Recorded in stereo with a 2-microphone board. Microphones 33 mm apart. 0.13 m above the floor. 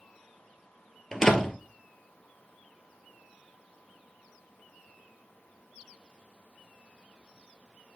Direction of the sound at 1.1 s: 15° left (ahead or behind).